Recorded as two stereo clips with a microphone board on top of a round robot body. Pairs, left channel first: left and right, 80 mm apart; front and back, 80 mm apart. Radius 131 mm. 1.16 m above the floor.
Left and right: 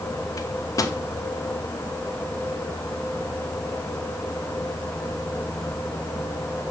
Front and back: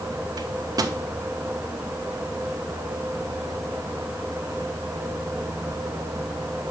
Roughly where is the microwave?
Behind left.